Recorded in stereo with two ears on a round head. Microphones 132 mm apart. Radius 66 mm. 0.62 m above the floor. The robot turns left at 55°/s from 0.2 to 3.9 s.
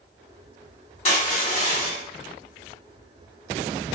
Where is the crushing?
120° left, 1.9 m; by 2.0 s 65° left, 1.9 m.